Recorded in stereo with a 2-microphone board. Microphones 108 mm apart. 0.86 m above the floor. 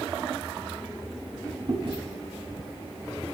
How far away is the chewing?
About 1.4 m.